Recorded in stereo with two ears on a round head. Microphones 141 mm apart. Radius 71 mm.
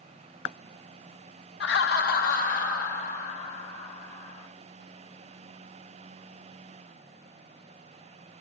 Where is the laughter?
80° left, 0.5 m; by 4.5 s 50° left (ahead or behind), 3 m.